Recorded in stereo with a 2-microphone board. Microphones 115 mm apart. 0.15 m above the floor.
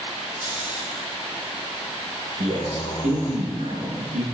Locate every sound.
0.4 s snoring: 40° left (ahead or behind), 2 m
2.4 s a man speaking: 70° right (ahead or behind), 5 m